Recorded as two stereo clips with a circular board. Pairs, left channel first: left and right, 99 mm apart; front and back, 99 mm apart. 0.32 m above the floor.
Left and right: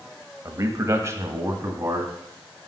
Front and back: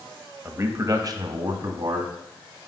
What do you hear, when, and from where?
0.5 s a man speaking: 130° right, 1.3 m; by 2.1 s 150° right, 2.5 m